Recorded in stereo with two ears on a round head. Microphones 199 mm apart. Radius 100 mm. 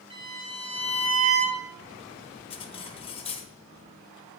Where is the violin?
25° right (ahead or behind), 5 m.